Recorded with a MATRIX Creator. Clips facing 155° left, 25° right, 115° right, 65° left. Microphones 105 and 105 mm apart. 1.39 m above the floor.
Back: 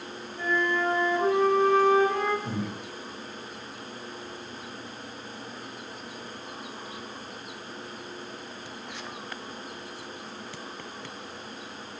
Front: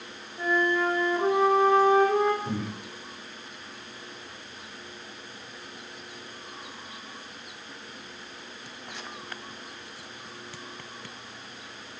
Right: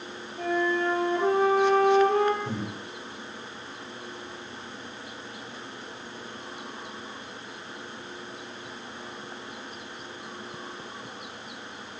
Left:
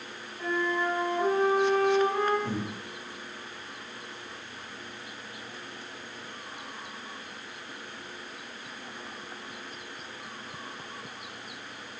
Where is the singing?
No singing in this recording.